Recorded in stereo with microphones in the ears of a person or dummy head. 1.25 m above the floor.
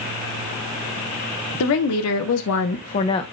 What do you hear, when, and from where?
1.6 s a woman speaking: 75° left (ahead or behind), 0.9 m; by 3.2 s 25° left (ahead or behind), 0.6 m